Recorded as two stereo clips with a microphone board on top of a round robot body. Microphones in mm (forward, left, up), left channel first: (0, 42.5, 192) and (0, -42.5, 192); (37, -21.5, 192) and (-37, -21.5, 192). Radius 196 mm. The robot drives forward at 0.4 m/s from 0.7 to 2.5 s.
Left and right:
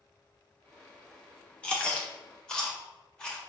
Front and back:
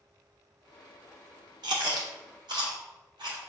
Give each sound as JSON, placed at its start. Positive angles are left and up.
{"t": 1.6, "sound": "chewing", "azimuth_deg": 165, "distance_m": 1.0}